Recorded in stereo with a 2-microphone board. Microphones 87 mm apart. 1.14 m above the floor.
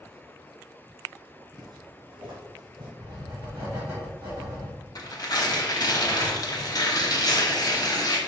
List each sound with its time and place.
1.5 s footsteps: 55° right (ahead or behind), 1.9 m
3.0 s writing: 30° right (ahead or behind), 2.0 m
5.0 s tearing paper: 50° left (ahead or behind), 0.8 m